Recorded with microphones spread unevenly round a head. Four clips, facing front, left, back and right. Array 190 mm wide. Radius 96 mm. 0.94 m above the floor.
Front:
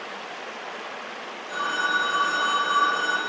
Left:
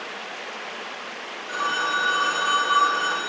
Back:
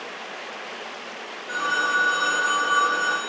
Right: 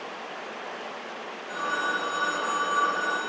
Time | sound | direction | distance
1.5 | a phone ringing | 125° left | 1.8 m